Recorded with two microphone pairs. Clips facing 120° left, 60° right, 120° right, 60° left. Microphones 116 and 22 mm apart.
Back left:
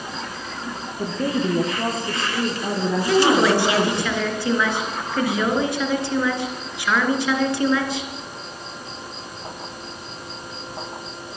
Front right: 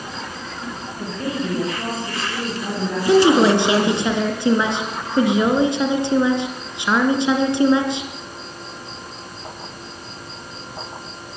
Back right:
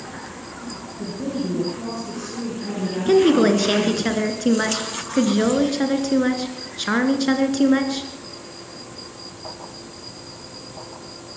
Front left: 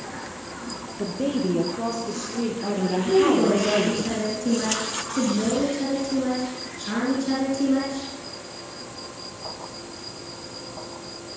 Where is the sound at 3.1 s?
125° right, 2.5 m.